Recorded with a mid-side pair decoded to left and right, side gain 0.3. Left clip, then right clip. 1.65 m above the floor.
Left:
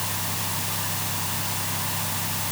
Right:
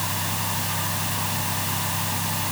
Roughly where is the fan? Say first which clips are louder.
Right 2 dB; ahead right.